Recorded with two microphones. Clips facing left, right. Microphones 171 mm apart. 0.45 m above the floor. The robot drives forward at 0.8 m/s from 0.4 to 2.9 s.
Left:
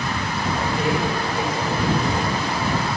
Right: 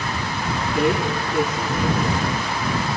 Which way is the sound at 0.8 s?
65° right (ahead or behind).